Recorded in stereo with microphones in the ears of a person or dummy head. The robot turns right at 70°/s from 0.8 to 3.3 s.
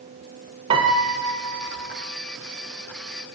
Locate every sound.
0.7 s a piano: 125° right, 1.1 m; by 1.9 s 50° right, 1.1 m